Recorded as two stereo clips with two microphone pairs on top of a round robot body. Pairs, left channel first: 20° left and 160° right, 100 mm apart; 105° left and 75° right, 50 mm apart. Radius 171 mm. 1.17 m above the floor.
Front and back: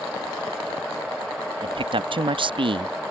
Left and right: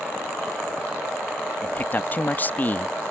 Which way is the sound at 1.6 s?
165° left.